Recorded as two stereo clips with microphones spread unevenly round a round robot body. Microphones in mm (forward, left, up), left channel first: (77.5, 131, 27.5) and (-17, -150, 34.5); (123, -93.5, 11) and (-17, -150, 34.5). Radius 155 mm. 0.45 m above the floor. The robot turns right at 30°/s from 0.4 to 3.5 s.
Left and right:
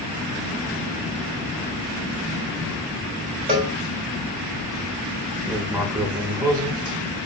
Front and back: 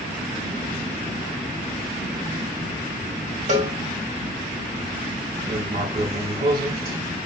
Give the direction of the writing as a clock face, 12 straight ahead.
6 o'clock.